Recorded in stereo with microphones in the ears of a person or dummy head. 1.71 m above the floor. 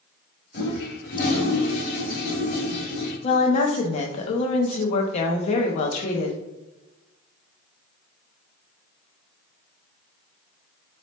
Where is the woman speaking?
45° left (ahead or behind), 0.5 m.